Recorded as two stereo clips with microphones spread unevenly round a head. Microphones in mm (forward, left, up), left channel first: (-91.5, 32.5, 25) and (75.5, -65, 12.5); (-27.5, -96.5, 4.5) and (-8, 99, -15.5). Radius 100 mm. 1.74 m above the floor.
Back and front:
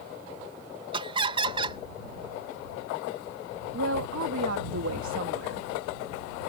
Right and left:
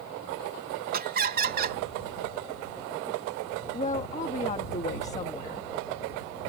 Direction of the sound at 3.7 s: 40° right.